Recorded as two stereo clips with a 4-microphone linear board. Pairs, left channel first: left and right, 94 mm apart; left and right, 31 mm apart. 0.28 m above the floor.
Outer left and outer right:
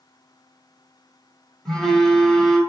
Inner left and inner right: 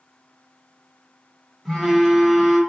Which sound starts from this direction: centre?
A phone buzzing, at 1.6 s.